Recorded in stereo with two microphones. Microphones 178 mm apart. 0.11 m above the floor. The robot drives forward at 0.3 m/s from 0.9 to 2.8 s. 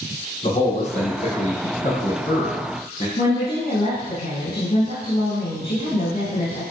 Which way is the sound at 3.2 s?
55° left (ahead or behind).